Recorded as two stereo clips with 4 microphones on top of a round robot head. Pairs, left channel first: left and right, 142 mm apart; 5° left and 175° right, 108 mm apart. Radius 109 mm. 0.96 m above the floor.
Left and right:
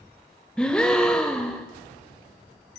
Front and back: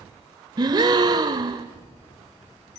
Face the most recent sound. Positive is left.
turn(degrees=175)